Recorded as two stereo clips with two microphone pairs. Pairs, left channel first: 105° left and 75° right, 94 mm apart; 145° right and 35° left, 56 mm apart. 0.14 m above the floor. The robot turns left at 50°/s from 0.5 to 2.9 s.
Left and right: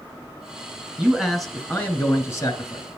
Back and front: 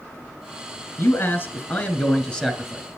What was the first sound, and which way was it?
A man speaking, 145° right.